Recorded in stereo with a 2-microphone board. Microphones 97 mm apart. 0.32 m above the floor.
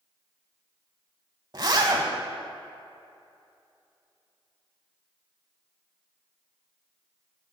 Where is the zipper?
50° right (ahead or behind), 0.7 m.